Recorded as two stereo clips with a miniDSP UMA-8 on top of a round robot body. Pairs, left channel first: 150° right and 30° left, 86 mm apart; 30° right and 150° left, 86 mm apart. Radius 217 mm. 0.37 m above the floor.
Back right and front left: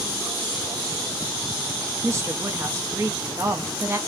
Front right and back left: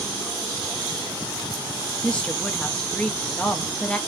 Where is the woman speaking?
35° left, 0.9 m.